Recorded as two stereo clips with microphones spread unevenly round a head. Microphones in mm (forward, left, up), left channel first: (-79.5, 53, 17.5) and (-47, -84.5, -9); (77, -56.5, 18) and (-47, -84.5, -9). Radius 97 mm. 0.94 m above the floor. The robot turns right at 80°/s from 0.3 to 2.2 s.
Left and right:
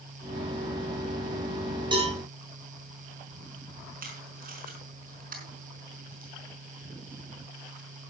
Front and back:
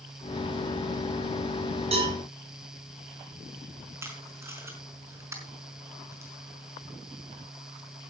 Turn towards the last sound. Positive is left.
turn(degrees=-95)